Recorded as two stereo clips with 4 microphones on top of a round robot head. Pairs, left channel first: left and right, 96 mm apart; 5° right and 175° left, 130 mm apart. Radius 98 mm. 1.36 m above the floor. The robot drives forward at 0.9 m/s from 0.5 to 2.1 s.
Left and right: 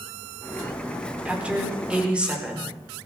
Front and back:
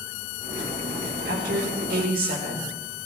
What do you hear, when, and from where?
1.2 s a woman speaking: 165° right, 3.5 m; by 2.8 s 170° right, 4.5 m